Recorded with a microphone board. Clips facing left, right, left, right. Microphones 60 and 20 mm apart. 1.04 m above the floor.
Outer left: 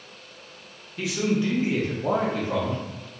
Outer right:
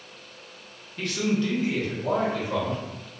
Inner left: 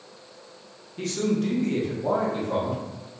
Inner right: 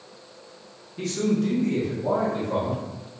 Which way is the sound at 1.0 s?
5° left (ahead or behind).